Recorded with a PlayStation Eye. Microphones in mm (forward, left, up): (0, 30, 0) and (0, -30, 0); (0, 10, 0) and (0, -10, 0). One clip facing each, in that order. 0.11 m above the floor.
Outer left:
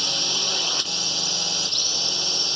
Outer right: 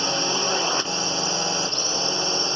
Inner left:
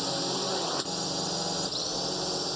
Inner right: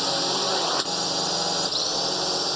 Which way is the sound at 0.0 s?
30° right (ahead or behind).